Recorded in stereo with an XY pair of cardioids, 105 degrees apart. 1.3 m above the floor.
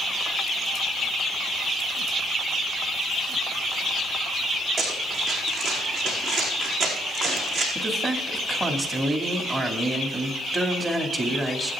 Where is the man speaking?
30° right, 2.5 m.